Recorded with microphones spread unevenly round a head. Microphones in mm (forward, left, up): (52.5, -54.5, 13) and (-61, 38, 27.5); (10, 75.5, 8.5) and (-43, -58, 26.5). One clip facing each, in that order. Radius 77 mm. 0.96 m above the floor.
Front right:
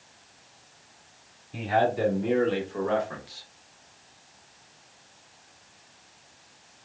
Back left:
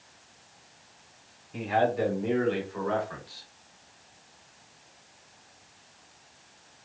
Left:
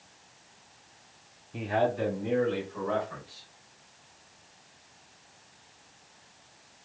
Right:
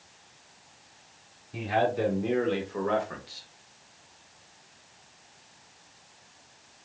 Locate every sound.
1.5 s a man speaking: 80° right, 2 m; by 3.5 s 110° right, 1.1 m